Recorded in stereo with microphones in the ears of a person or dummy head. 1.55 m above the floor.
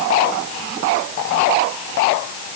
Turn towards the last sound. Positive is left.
No sound to turn to.